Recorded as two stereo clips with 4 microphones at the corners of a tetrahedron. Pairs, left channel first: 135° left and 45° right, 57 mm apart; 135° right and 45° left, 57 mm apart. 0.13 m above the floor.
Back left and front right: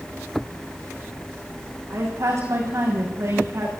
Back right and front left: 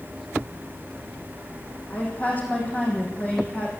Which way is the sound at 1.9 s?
75° right.